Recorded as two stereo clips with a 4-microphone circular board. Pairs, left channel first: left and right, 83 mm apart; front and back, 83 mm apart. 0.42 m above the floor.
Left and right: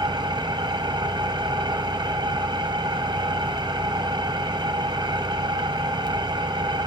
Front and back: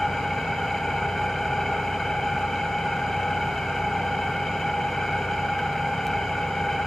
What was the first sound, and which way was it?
An engine running, 85° right.